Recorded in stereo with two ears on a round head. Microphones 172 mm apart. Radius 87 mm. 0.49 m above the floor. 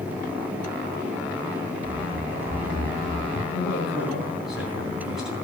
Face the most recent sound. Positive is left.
turn(degrees=0)  # may be behind; listen again after turning